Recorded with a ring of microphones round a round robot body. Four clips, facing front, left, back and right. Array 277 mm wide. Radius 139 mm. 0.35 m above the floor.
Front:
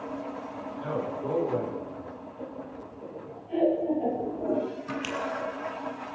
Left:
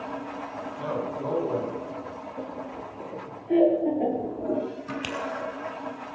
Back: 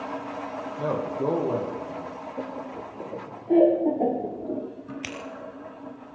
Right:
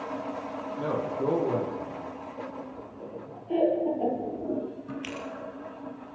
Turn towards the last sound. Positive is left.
turn(degrees=115)